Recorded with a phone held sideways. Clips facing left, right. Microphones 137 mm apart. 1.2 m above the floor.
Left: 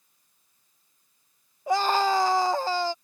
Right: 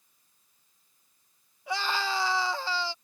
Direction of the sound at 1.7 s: 45° left (ahead or behind).